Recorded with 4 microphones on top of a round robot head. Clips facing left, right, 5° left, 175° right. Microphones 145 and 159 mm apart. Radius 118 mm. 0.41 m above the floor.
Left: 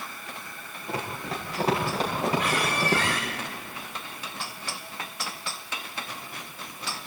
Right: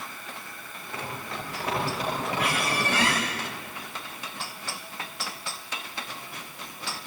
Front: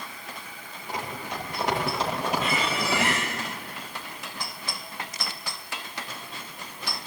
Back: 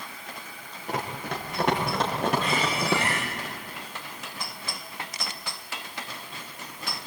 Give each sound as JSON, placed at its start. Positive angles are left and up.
{"t": 0.9, "sound": "running footsteps", "azimuth_deg": 160, "distance_m": 8.0}
{"t": 2.4, "sound": "a squeak", "azimuth_deg": -75, "distance_m": 8.5}